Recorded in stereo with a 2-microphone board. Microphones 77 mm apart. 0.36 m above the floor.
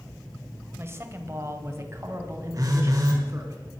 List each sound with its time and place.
0.8 s a man speaking: 30° right (ahead or behind), 1.8 m; by 3.5 s 35° right (ahead or behind), 4 m
2.5 s a phone buzzing: 45° right (ahead or behind), 3 m